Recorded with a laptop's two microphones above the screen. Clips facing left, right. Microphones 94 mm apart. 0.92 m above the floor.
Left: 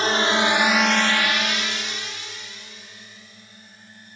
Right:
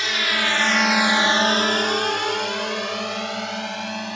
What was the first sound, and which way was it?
A drone, 35° left (ahead or behind).